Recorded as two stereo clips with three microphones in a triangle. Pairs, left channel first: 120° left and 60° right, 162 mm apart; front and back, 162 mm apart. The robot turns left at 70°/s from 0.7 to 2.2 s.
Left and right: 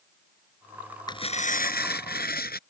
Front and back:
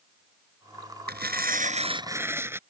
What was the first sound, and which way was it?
Tearing paper, 175° right.